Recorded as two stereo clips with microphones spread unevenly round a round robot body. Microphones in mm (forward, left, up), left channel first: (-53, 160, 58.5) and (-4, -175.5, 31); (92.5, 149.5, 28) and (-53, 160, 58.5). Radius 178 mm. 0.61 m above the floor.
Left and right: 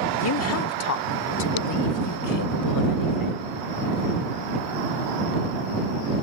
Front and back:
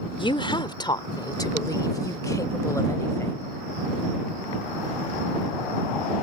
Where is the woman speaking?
45° left; by 3.5 s 70° left.